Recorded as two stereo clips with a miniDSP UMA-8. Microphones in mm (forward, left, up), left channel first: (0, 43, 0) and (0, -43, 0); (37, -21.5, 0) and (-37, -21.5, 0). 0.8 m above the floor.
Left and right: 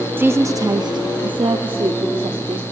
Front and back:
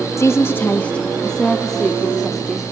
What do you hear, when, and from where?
0.2 s a woman speaking: 30° right, 0.6 m; by 2.6 s 95° right, 1.5 m